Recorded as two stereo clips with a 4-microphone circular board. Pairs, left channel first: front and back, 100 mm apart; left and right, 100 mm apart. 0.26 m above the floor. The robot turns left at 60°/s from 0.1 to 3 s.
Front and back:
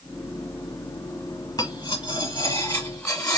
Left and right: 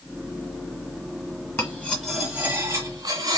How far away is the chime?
I don't hear a chime.